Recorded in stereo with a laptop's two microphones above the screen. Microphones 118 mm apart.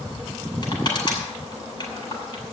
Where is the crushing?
40° left (ahead or behind), 8 m.